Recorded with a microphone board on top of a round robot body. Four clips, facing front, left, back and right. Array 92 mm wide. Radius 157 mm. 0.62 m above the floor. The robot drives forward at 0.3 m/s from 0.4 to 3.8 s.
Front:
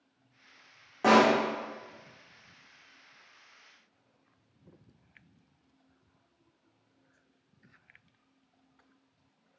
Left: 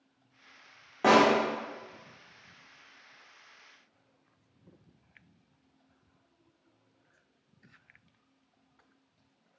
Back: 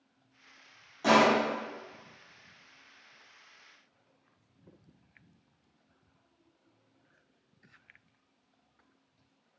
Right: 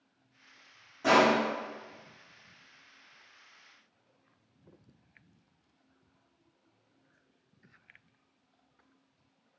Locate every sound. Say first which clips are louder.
1.0 s a pop: left 2 dB, front 1 dB; 55° left, 0.6 m; by 1.3 s 65° left, 0.5 m